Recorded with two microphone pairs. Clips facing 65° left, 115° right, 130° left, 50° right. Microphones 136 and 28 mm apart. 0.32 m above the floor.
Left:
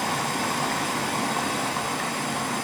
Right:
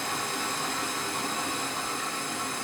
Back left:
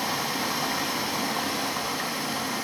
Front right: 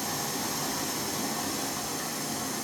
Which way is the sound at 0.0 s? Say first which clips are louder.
Left 6 dB, back left 5 dB; 80° left.